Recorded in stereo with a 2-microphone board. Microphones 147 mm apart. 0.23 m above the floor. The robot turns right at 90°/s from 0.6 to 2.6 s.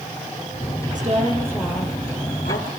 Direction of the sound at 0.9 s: 65° right.